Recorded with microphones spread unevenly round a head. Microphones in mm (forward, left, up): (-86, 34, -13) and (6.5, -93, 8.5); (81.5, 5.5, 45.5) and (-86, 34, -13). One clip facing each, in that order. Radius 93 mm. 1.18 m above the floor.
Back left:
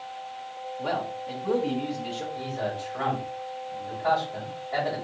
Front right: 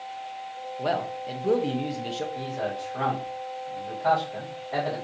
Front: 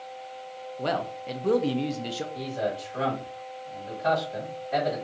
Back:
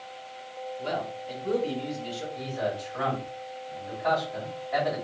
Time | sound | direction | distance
0.8 | a man speaking | 5° left | 0.9 m
2.4 | a man speaking | 20° left | 2.5 m